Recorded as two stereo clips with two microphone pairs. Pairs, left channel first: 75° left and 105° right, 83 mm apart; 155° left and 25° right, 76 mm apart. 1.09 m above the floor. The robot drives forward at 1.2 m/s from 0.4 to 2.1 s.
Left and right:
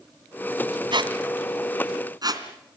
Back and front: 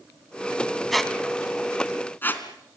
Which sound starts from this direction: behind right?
A squeak, at 0.9 s.